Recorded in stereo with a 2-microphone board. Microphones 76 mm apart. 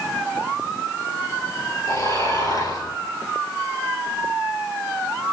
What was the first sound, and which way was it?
Snoring, 55° left (ahead or behind).